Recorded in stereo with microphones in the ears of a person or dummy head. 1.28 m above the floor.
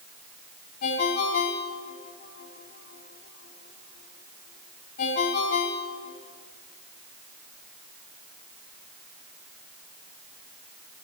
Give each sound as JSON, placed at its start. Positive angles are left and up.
{"t": 0.8, "sound": "a ringtone", "side_deg": 55, "distance_m": 4.5}